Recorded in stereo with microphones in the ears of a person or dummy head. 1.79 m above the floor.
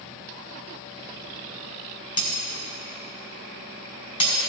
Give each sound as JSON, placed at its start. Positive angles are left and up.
{"t": 2.2, "sound": "breaking glass", "side_deg": 35, "distance_m": 3.0}